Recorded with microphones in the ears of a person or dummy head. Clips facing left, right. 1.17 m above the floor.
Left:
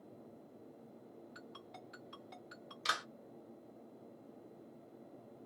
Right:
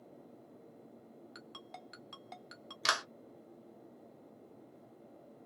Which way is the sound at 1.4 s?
70° right (ahead or behind).